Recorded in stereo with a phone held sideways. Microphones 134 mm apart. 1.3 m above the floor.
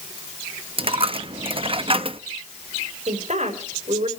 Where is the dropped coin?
45° right (ahead or behind), 0.8 m.